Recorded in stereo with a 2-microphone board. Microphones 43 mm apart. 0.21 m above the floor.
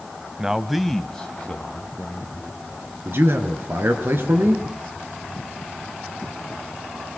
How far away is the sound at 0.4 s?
About 1.0 m.